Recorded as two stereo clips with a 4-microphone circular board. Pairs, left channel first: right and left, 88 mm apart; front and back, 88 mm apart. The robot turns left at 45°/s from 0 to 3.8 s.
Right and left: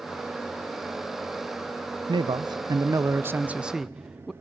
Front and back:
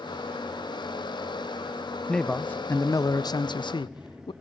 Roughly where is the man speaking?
Left.